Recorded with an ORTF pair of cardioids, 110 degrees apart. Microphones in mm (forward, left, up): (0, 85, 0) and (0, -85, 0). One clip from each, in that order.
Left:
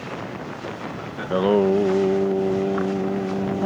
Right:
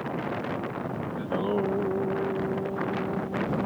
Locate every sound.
1.2 s singing: 60° left